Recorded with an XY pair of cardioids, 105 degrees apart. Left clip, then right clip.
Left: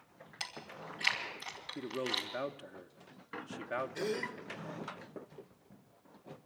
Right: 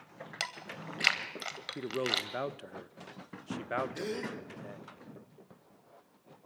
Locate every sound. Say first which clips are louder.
0.4 s chewing: right 4 dB; 65° right, 2.5 m
1.8 s a man speaking: right 4 dB; 20° right, 0.8 m
4.0 s a gasp: left 1 dB; 5° right, 1.7 m